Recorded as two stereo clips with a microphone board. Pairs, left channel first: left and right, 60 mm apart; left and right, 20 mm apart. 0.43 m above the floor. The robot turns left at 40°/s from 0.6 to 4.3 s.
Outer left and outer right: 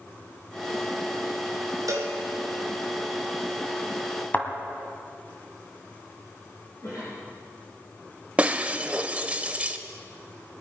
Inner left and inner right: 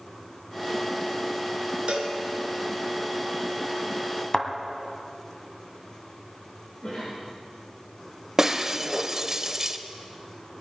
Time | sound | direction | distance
1.9 | a cowbell | 70° right (ahead or behind) | 2.5 m
4.3 | a thud | 30° left (ahead or behind) | 1.7 m
6.8 | a cough | 60° left (ahead or behind) | 6 m
8.4 | breaking glass | 20° right (ahead or behind) | 0.7 m